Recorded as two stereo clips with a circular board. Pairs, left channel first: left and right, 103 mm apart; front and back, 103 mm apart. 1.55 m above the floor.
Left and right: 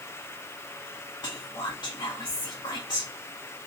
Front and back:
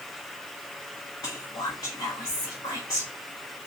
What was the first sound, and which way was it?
Whispering, 45° left.